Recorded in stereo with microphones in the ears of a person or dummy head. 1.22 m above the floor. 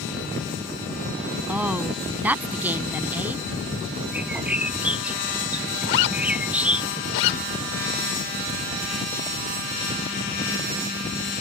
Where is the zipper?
65° left (ahead or behind).